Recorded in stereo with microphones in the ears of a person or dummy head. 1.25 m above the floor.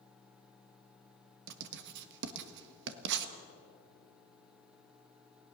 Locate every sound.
1.5 s writing: 60° right (ahead or behind), 1.4 m